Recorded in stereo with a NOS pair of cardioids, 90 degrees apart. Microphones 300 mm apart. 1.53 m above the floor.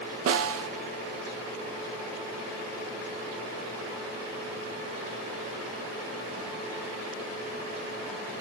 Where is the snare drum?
50° right, 0.6 m.